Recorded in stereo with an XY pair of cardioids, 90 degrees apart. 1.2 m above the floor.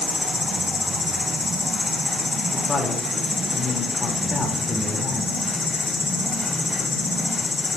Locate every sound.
0.0 s an insect: 35° left, 1.4 m
2.5 s a woman speaking: 40° left, 4 m